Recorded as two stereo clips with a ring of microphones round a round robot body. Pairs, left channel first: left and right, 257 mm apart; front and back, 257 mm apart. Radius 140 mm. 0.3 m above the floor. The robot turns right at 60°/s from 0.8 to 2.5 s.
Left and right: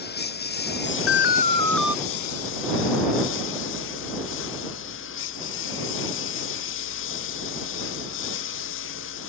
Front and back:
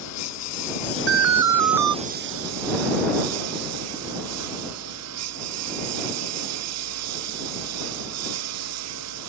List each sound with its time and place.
0.0 s a lawn mower: 40° left; by 9.3 s 140° left
1.1 s an alarm: 135° left; by 1.9 s 175° right